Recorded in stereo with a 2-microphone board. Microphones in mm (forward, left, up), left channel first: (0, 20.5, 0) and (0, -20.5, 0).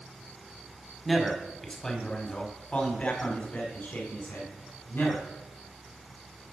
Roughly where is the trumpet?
No trumpet in this recording.